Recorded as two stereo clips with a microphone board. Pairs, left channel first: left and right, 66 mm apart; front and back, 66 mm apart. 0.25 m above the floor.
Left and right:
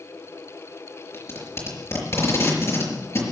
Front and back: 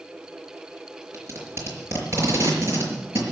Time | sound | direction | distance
1.1 | tape being pulled | 135° left | 5 m